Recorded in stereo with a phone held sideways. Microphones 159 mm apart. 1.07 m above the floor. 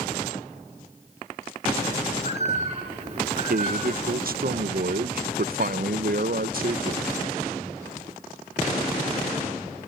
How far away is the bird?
About 5.5 m.